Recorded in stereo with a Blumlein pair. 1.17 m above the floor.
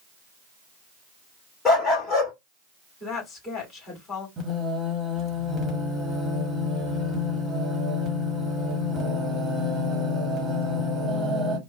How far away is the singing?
About 1.4 m.